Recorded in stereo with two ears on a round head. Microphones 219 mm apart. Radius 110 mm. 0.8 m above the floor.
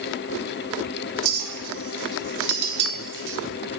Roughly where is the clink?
Right.